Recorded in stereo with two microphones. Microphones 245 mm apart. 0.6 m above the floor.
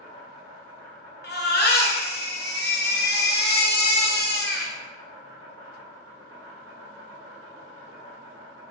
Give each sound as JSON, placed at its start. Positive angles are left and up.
{"t": 0.0, "sound": "an insect", "side_deg": -65, "distance_m": 0.8}
{"t": 1.2, "sound": "a baby crying", "side_deg": 40, "distance_m": 0.5}